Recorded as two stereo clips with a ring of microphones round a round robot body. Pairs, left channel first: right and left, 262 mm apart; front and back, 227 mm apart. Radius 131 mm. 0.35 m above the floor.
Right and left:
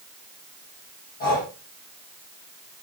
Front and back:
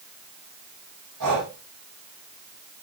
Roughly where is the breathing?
Behind right.